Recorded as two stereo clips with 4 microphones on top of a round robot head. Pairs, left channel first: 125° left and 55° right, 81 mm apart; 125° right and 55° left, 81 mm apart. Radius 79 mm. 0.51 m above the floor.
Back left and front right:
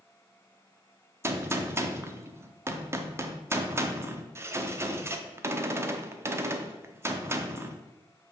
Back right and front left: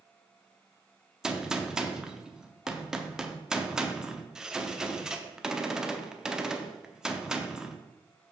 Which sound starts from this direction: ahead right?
A gunshot, at 1.2 s.